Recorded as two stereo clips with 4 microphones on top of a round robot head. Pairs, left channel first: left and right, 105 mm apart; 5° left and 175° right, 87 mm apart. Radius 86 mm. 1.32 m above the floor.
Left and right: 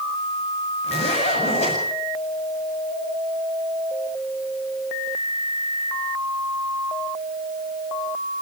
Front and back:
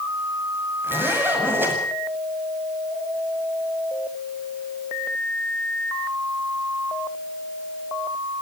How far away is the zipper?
About 8 m.